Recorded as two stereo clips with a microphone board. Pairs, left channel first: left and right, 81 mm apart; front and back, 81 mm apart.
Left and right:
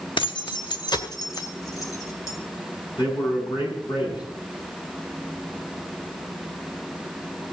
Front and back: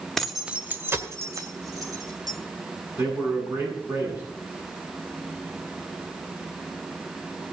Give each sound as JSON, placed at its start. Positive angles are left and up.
{"t": 0.2, "sound": "keys jangling", "azimuth_deg": 85, "distance_m": 1.2}
{"t": 3.0, "sound": "a man speaking", "azimuth_deg": 125, "distance_m": 7.5}